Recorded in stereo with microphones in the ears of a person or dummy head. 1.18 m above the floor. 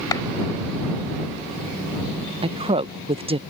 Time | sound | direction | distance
0.1 | a clap | 20° left (ahead or behind) | ?
2.4 | a woman speaking | 30° right (ahead or behind) | ?